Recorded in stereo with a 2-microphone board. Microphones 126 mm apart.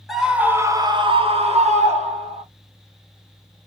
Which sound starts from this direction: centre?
A scream, at 0.1 s.